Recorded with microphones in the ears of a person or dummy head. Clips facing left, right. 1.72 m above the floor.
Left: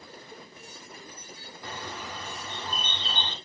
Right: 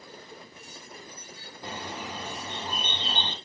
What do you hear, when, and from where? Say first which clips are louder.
1.6 s a bird: right 2 dB; 25° right (ahead or behind), 2.5 m